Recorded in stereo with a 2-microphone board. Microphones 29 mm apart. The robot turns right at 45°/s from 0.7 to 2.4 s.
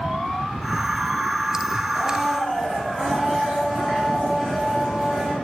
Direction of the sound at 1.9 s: 5° right (ahead or behind).